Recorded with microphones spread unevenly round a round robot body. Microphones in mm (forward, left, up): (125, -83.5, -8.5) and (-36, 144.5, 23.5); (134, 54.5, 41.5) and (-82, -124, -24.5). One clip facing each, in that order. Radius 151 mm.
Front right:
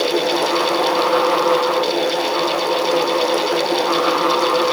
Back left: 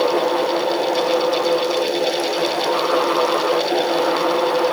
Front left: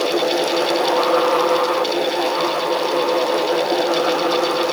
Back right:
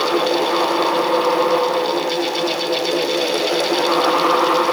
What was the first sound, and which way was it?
Only background noise.